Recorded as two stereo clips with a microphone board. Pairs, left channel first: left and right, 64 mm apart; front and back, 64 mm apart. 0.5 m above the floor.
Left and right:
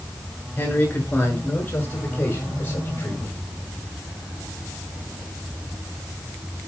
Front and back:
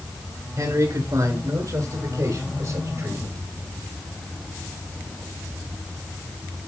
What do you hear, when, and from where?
0.6 s a man speaking: 155° left, 7.5 m; by 3.4 s 150° left, 5.5 m